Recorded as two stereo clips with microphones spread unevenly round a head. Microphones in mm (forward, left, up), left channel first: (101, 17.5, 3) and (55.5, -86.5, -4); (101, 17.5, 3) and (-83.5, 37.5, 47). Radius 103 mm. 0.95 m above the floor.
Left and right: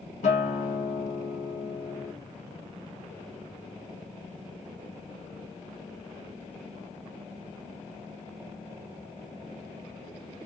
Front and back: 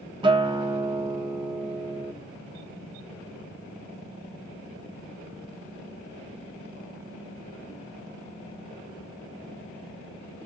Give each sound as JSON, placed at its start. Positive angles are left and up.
{"t": 0.2, "sound": "a guitar", "azimuth_deg": 105, "distance_m": 0.7}